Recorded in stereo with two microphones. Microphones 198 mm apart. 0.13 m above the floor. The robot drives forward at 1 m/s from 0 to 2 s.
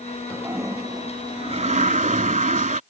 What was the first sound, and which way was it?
A toilet flushing, 15° right (ahead or behind).